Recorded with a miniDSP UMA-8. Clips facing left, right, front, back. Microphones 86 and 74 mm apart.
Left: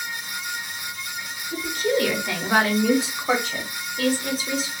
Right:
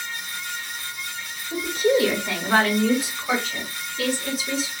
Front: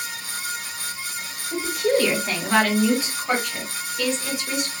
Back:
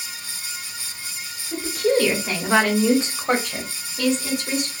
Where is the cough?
No cough in this recording.